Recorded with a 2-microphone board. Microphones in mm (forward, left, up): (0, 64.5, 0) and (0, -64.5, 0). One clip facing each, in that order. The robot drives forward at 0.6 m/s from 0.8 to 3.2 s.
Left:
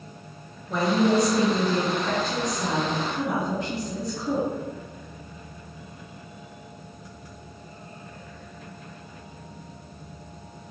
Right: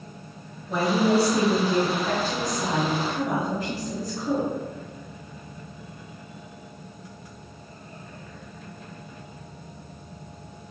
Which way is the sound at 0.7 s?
5° right (ahead or behind).